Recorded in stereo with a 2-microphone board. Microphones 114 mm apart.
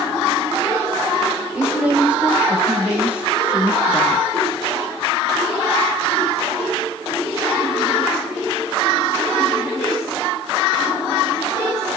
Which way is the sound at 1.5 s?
10° right (ahead or behind).